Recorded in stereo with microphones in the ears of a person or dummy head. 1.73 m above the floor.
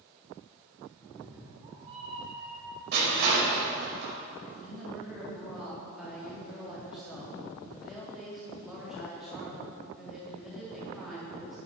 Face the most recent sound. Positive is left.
turn(degrees=-5)  # may be behind; listen again after turning